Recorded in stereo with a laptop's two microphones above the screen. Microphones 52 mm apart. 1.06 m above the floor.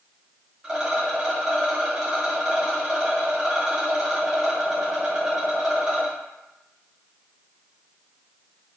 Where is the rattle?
15° right (ahead or behind), 0.7 m.